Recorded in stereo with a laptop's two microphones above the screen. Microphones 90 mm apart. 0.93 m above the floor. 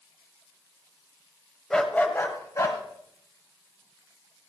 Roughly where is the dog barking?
Centre.